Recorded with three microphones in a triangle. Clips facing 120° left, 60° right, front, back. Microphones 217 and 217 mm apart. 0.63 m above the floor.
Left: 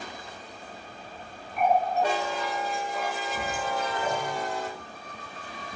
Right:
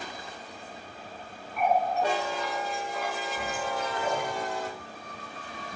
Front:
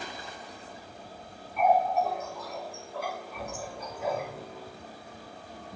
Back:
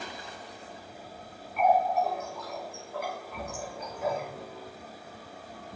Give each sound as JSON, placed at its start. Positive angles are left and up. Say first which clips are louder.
{"t": 1.6, "sound": "a running tap", "louder": "left 2 dB, even", "azimuth_deg": 150, "distance_m": 2.5}